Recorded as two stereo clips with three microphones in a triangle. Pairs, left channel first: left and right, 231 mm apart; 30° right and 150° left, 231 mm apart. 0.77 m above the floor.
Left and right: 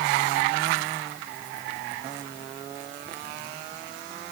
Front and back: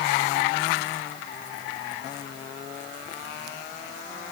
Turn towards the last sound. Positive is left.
No sound to turn to.